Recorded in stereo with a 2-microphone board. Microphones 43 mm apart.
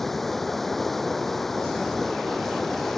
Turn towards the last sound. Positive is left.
turn(degrees=5)  # may be behind; listen again after turning